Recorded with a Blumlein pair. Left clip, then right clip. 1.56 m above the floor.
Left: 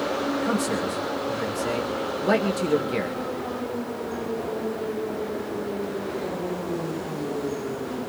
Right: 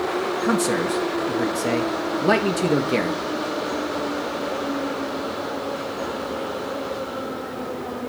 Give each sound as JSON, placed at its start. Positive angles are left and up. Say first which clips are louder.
{"t": 0.4, "sound": "a man speaking", "louder": "right 4 dB", "azimuth_deg": -15, "distance_m": 2.0}